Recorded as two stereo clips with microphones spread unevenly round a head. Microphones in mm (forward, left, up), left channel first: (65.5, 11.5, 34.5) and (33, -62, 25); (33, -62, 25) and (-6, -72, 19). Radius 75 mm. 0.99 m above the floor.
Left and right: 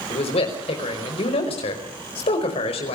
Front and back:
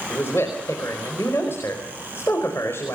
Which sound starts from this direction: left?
A man speaking, at 0.1 s.